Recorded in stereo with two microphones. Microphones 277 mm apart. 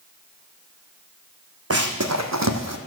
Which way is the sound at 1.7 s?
55° right (ahead or behind).